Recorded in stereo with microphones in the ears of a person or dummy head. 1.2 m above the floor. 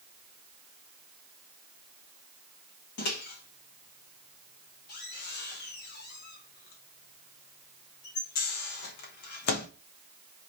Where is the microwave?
55° left (ahead or behind), 1.1 m.